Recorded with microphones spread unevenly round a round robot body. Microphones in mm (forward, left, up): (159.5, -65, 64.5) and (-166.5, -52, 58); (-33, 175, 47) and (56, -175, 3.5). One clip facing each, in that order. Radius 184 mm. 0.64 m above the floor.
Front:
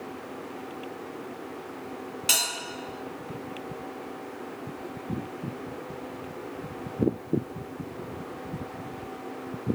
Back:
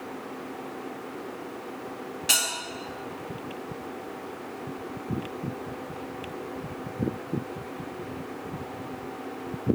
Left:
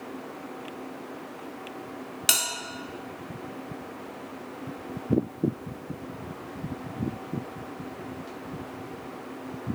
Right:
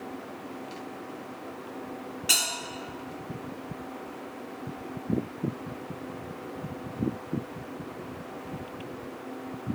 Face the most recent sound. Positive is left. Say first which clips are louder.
# back 1 dB, left 1 dB
turn(degrees=75)